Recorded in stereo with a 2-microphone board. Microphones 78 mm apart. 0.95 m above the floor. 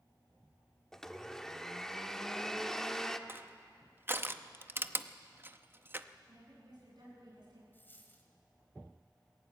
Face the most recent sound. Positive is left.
turn(degrees=25)  # may be behind; listen again after turning